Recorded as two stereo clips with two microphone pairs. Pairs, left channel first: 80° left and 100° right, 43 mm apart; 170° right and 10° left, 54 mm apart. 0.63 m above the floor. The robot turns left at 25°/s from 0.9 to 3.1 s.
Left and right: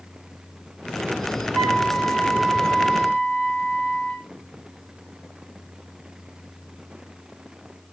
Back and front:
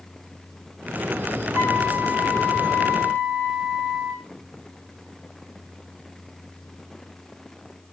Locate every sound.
1.5 s a flute: 45° left, 2.5 m; by 4.2 s 5° left, 2.5 m